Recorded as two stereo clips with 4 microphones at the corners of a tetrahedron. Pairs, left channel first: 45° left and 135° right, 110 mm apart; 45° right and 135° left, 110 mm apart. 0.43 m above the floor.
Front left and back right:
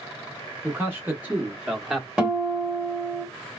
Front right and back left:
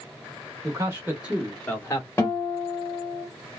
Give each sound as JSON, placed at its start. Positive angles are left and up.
{"t": 0.6, "sound": "a man speaking", "azimuth_deg": 165, "distance_m": 1.0}
{"t": 2.2, "sound": "a guitar", "azimuth_deg": -65, "distance_m": 1.5}